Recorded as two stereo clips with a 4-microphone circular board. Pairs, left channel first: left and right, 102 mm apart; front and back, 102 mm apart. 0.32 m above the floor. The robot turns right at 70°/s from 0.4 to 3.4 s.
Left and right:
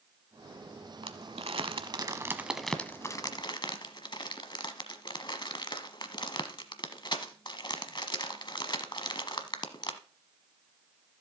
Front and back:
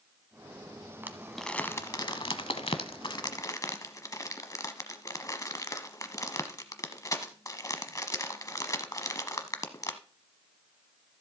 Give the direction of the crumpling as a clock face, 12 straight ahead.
4 o'clock.